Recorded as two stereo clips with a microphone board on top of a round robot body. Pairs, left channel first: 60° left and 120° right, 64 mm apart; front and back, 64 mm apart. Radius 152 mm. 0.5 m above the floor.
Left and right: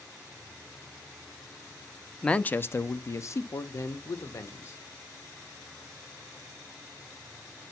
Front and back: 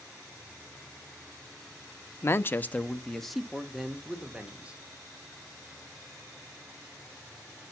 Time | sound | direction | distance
2.2 | a man speaking | 10° right | 0.9 m